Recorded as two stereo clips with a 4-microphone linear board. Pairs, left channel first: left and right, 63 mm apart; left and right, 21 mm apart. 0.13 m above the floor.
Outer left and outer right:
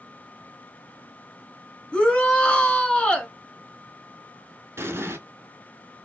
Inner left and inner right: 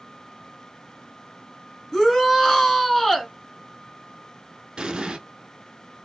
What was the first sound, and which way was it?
A shout, 15° left (ahead or behind).